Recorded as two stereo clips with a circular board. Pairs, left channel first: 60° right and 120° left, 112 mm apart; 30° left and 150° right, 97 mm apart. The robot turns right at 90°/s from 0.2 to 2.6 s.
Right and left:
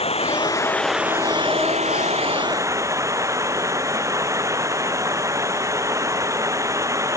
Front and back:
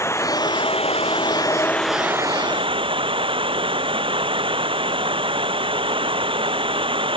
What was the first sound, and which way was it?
Running water, 35° right.